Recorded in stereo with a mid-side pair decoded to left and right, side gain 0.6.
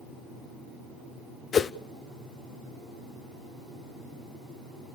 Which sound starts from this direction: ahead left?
A whoosh, at 1.5 s.